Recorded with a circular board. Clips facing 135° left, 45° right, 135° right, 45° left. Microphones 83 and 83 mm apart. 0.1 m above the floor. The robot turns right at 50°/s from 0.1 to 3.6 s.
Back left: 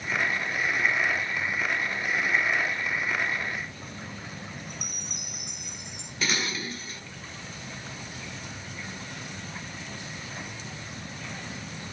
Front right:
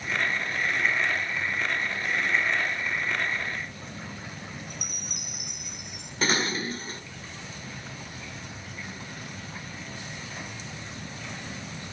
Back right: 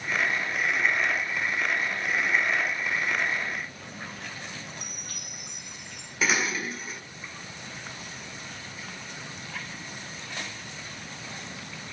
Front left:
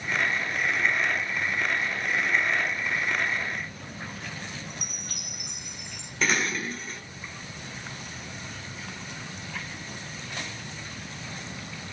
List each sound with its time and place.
4.7 s a chime: 40° left, 2 m
6.2 s dishes clattering: 50° right, 1.0 m